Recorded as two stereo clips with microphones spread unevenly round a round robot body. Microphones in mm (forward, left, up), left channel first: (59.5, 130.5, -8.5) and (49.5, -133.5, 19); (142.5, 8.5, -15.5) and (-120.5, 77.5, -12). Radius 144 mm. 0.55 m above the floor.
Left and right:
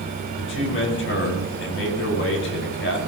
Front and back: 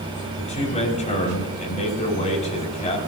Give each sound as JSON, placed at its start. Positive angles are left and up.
{"t": 0.4, "sound": "a man speaking", "azimuth_deg": 50, "distance_m": 5.5}